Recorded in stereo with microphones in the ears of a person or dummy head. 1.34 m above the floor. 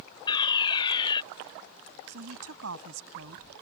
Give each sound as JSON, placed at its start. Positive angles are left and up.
{"t": 0.3, "sound": "a fire alarm", "side_deg": 30}
{"t": 2.1, "sound": "a woman speaking", "side_deg": -85}